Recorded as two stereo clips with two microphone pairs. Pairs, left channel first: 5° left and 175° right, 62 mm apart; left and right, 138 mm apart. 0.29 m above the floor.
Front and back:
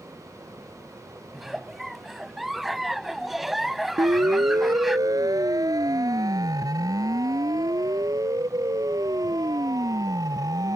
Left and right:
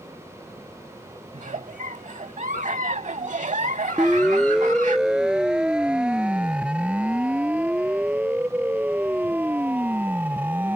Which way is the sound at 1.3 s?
90° right.